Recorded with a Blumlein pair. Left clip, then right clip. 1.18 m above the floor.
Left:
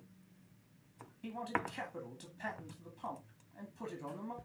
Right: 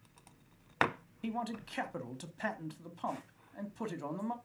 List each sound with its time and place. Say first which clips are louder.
1.2 s a man speaking: left 1 dB; 25° right, 2.5 m